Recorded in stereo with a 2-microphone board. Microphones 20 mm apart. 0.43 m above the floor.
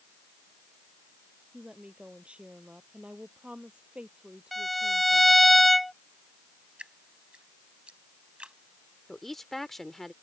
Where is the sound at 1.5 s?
70° right (ahead or behind); by 5.4 s 60° right (ahead or behind).